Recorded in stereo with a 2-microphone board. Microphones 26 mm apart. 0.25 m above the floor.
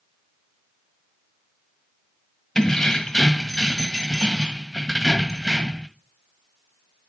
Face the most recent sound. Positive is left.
turn(degrees=15)  # may be behind; listen again after turning